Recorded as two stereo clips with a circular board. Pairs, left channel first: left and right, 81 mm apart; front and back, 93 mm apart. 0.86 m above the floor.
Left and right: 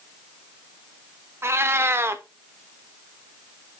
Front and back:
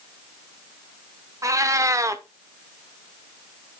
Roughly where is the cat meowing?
Behind right.